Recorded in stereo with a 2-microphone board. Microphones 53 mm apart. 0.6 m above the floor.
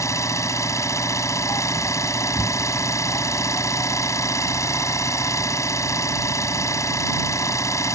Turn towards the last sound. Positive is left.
turn(degrees=80)